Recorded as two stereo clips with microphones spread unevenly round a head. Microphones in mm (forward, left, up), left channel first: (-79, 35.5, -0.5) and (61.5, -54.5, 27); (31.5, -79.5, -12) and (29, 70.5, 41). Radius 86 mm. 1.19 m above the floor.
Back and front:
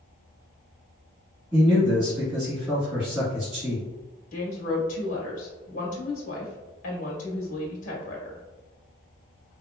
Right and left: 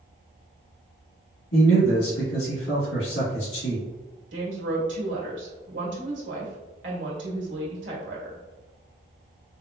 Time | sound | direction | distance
1.5 | a man speaking | 105° right | 1.8 m
4.3 | a woman speaking | 100° left | 1.6 m